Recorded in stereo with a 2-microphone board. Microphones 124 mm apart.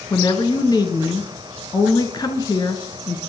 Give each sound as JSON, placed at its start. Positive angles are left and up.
{"t": 0.1, "sound": "a woman speaking", "side_deg": 35, "distance_m": 1.3}